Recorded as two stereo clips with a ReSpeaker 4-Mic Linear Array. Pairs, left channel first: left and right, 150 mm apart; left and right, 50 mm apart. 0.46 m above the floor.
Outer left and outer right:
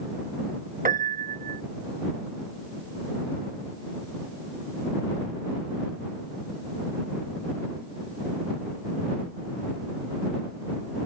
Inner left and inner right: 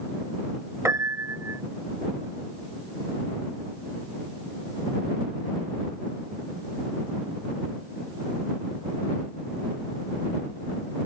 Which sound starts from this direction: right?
A piano, at 0.8 s.